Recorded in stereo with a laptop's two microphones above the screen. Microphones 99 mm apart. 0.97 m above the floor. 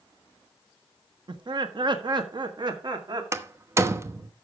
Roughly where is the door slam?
Right.